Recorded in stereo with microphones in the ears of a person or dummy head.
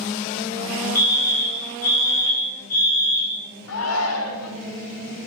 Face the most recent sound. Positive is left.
turn(degrees=80)